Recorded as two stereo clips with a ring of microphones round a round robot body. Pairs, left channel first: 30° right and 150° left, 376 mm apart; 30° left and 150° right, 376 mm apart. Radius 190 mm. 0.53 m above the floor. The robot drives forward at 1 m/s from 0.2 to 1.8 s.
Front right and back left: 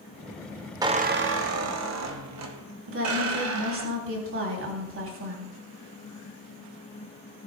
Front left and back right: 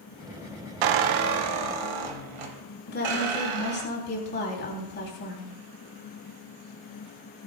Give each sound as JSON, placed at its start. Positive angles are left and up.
{"t": 0.8, "sound": "a squeak", "azimuth_deg": -130, "distance_m": 0.7}
{"t": 2.9, "sound": "a woman speaking", "azimuth_deg": 95, "distance_m": 3.5}